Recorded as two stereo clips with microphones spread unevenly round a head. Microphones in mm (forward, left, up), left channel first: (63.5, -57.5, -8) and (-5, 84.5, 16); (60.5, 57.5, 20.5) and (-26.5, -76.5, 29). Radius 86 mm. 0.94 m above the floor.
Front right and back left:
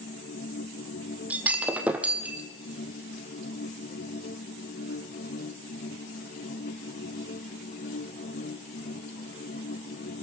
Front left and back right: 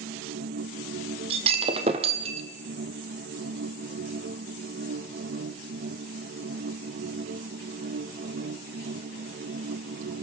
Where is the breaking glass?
170° right, 1.5 m.